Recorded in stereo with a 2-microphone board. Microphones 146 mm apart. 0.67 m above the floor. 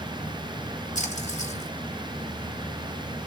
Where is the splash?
60° left (ahead or behind), 2 m.